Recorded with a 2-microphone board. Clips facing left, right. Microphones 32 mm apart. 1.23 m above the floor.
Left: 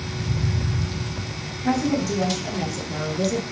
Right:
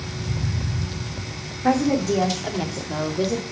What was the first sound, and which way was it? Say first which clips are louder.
A woman speaking: right 3 dB; 60° right (ahead or behind).